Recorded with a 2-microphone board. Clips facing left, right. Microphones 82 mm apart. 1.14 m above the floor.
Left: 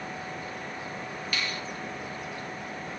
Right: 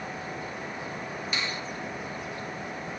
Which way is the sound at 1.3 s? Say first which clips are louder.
Even; 20° right (ahead or behind).